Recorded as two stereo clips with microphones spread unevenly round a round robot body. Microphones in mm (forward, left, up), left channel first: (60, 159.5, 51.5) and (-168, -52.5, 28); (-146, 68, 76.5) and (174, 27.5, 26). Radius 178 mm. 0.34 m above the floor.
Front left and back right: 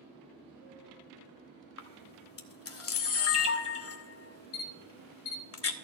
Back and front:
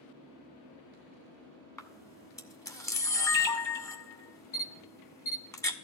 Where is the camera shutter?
90° left, 1.2 m.